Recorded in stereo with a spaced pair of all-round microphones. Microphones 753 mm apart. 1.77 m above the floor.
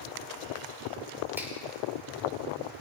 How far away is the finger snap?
About 4.5 m.